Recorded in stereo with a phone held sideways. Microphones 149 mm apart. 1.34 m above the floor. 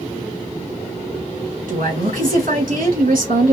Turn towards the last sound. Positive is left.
turn(degrees=-70)  # may be behind; listen again after turning